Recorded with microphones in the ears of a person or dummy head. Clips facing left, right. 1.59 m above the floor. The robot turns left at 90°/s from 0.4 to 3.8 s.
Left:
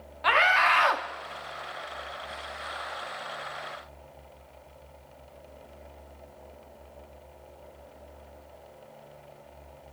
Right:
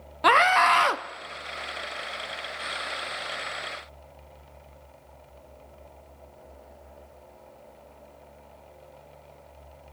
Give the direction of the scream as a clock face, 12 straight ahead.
3 o'clock.